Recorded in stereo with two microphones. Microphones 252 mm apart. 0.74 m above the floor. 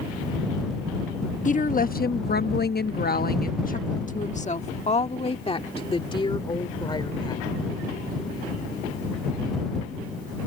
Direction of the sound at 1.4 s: 35° left (ahead or behind).